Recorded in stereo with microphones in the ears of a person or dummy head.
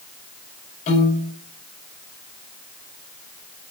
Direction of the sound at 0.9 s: 45° left (ahead or behind).